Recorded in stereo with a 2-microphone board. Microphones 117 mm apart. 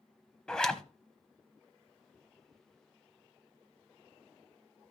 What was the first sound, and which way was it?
A zipper, 5° left (ahead or behind).